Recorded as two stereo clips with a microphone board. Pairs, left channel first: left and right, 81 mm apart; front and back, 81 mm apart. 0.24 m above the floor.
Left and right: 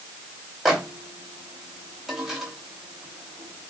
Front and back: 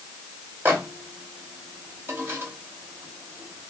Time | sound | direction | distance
0.7 | a microwave | 170° right | 1.2 m